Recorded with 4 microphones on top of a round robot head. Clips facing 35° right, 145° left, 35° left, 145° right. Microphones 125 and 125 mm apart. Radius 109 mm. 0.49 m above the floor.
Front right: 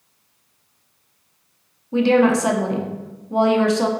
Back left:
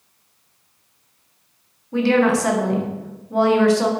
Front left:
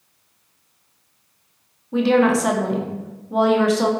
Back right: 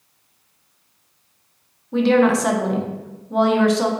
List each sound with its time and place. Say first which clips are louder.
1.9 s a woman speaking: front right 1 dB, back right 1 dB; 50° right, 0.7 m